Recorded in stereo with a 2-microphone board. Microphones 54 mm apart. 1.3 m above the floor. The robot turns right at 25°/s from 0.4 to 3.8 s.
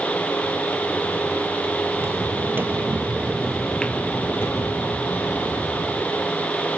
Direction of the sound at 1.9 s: 40° right (ahead or behind).